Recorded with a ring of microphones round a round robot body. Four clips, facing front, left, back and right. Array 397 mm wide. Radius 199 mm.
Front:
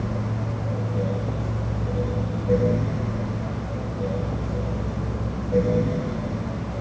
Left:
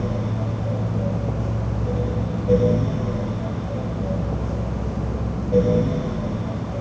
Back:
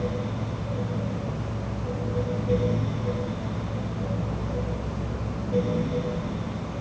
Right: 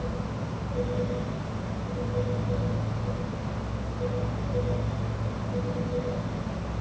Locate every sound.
Only background noise.